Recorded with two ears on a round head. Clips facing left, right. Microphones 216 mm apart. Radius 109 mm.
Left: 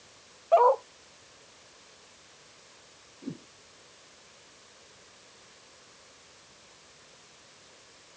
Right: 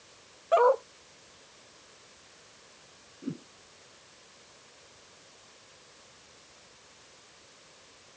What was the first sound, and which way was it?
A dog barking, 20° right (ahead or behind).